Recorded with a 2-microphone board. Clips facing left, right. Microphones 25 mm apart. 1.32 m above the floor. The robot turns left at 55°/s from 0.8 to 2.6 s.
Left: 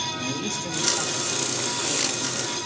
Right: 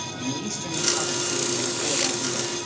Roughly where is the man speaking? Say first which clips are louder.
Left 1 dB; ahead.